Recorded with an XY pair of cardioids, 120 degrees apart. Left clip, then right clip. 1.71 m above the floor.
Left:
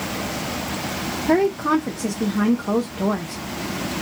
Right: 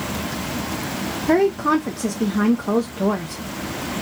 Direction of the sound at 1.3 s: 5° right.